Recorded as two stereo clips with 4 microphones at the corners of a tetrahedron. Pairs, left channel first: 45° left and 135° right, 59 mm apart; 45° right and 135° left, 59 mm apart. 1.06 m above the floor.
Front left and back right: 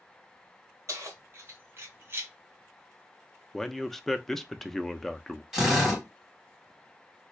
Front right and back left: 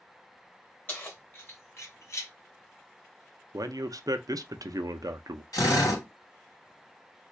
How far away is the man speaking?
About 0.5 m.